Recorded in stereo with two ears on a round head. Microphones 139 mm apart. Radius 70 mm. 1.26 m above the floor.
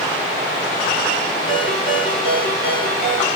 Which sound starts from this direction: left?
A ringtone, at 1.5 s.